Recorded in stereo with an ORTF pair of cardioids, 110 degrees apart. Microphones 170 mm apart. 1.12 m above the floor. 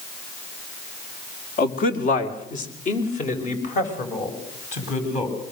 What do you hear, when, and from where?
1.6 s a man speaking: 60° left, 3 m; by 5.3 s 45° left, 8.5 m